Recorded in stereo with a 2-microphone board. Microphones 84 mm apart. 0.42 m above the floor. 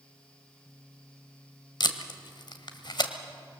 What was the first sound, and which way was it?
Tape being pulled, 60° left (ahead or behind).